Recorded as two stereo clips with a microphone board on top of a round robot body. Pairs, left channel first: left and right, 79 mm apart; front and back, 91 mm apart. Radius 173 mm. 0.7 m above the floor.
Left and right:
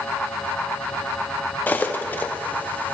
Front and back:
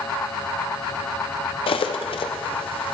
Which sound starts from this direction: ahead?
Cutlery clinking, at 1.7 s.